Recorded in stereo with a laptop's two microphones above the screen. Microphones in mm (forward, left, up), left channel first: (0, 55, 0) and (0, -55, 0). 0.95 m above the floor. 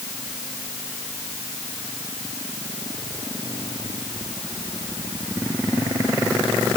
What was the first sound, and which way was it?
Only background noise.